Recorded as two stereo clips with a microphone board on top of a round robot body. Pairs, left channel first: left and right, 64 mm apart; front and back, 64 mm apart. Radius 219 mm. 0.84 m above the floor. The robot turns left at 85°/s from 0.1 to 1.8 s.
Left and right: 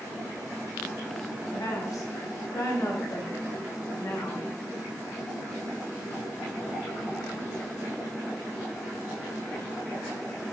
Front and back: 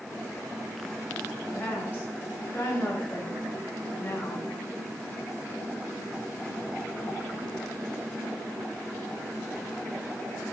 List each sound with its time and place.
1.5 s a woman speaking: 80° left, 4.5 m; by 4.5 s 55° left, 4.5 m